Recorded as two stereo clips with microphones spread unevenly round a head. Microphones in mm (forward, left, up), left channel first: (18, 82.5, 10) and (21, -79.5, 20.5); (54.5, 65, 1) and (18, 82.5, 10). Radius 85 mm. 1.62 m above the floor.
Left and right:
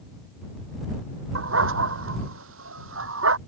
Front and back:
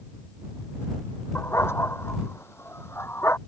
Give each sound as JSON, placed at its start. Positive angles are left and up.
{"t": 1.4, "sound": "a dog barking", "azimuth_deg": -95}